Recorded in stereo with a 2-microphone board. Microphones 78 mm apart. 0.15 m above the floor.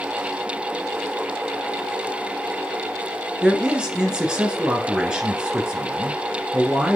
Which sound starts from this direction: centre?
A man speaking, at 3.4 s.